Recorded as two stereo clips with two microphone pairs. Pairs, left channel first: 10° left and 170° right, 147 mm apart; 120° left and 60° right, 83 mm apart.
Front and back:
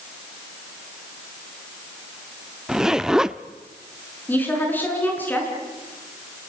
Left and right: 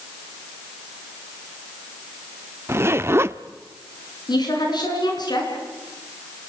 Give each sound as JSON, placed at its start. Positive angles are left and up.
{"t": 2.7, "sound": "a zipper", "azimuth_deg": -85, "distance_m": 0.5}
{"t": 4.3, "sound": "a woman speaking", "azimuth_deg": 90, "distance_m": 6.0}